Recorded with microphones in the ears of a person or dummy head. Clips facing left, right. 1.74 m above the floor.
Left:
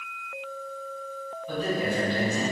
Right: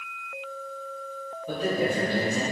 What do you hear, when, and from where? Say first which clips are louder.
1.5 s a man speaking: right 2 dB; 40° right (ahead or behind), 2.5 m